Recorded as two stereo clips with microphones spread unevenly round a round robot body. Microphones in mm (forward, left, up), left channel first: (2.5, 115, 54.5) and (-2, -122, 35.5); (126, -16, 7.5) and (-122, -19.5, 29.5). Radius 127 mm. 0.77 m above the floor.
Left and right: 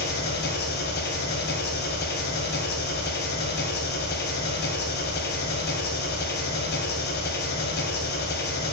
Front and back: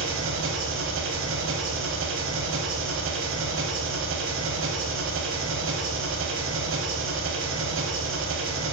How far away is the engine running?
About 1.9 m.